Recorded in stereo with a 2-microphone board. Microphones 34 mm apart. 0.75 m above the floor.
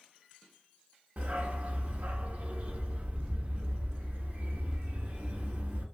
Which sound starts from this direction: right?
A dog barking, at 1.2 s.